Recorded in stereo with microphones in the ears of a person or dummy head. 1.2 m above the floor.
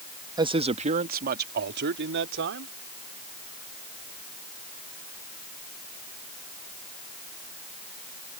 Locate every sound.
0.4 s a man speaking: 25° right (ahead or behind); by 2.7 s 65° right (ahead or behind)